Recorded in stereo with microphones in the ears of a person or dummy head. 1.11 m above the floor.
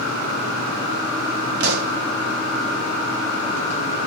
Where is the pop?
60° right (ahead or behind), 0.9 m.